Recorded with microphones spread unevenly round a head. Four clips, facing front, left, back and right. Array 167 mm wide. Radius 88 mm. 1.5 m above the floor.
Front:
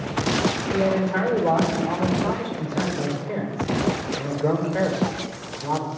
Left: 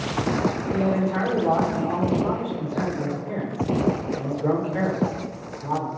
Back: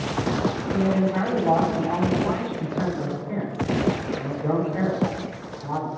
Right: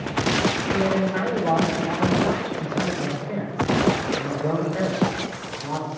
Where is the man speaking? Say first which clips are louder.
Even, even; 25° left, 4.5 m.